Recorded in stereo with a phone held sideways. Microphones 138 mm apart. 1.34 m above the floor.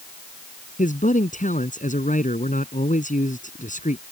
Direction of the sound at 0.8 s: 70° left (ahead or behind).